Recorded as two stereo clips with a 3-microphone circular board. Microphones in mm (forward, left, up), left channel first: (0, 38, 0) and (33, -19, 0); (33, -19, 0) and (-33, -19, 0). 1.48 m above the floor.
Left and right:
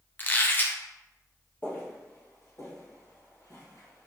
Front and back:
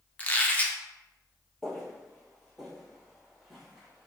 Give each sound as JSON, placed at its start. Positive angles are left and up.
{"t": 0.2, "sound": "a squeak", "azimuth_deg": 60, "distance_m": 0.5}
{"t": 1.6, "sound": "footsteps", "azimuth_deg": 85, "distance_m": 1.7}